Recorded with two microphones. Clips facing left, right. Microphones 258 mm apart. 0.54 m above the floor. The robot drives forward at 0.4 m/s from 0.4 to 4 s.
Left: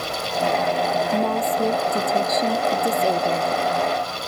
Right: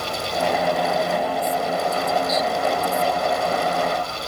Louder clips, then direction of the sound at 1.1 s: Left 2 dB; 55° left (ahead or behind).